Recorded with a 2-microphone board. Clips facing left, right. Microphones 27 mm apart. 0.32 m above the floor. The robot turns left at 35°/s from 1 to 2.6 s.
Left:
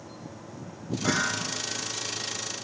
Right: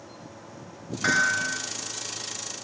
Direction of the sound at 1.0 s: 75° right (ahead or behind).